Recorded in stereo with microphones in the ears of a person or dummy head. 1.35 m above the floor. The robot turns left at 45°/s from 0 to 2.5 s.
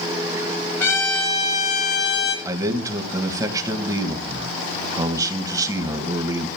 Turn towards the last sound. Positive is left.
turn(degrees=-20)  # may be behind; listen again after turning